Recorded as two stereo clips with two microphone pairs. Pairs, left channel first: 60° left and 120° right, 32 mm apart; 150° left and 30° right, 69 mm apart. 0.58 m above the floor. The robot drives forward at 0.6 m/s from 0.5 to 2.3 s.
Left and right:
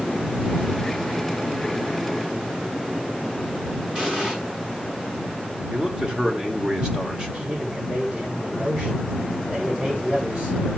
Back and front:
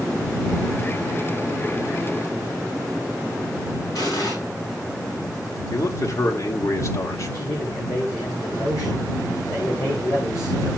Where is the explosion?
170° right, 6 m.